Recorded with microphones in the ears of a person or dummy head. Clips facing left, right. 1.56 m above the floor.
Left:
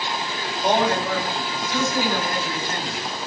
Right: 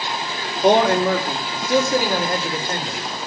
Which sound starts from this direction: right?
A man speaking, at 0.6 s.